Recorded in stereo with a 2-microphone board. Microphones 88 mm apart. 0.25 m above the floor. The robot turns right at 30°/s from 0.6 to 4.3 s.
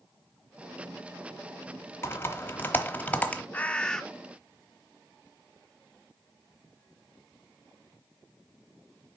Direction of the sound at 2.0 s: 25° left (ahead or behind).